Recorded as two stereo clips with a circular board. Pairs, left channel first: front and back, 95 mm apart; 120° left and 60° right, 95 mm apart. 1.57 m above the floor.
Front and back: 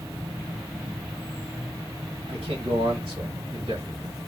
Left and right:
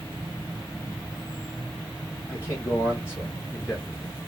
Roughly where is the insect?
Behind.